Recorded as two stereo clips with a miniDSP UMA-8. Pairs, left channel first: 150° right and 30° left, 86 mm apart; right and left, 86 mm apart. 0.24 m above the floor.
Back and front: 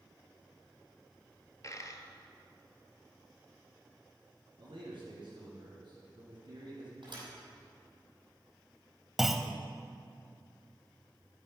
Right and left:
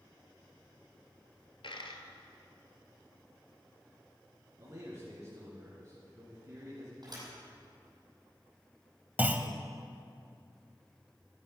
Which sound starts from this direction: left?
A clunk, at 9.2 s.